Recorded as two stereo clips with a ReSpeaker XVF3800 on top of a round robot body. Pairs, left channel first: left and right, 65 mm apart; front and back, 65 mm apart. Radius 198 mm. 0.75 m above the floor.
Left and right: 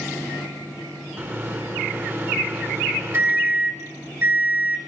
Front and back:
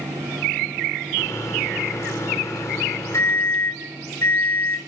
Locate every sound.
1.2 s a microwave: 40° right, 2.5 m